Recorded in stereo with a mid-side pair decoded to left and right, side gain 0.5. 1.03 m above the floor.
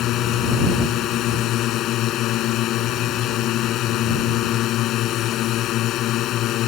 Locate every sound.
0.0 s a drone: 70° left